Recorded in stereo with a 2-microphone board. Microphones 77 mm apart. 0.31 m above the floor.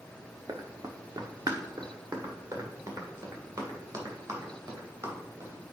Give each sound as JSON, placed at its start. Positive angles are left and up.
{"t": 0.5, "sound": "running footsteps", "side_deg": -50, "distance_m": 1.0}